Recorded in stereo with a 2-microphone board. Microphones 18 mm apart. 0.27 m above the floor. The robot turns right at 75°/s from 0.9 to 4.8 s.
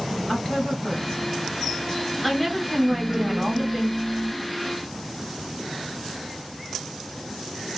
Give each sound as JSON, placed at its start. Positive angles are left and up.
{"t": 0.3, "sound": "a woman speaking", "azimuth_deg": 70, "distance_m": 1.0}
{"t": 2.9, "sound": "laughter", "side_deg": 5, "distance_m": 0.9}